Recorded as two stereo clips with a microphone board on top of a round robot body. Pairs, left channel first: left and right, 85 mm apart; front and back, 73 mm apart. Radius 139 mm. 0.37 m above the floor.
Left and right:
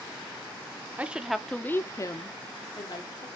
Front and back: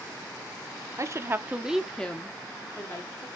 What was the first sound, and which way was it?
A woman speaking, 155° right.